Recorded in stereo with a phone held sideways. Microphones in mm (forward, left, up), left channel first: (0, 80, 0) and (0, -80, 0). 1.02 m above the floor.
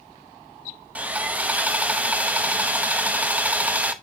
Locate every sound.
0.9 s sawing: 10° right (ahead or behind), 0.7 m